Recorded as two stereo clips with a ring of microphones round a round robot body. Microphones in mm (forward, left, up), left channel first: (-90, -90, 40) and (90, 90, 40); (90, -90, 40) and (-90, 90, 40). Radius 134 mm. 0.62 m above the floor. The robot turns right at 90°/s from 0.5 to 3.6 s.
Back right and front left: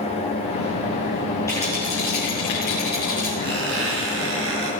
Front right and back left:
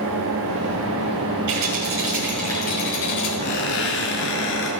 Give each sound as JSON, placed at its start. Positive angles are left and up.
{"t": 1.5, "sound": "a rattle", "azimuth_deg": 145, "distance_m": 6.5}
{"t": 3.4, "sound": "a squeak", "azimuth_deg": -15, "distance_m": 5.5}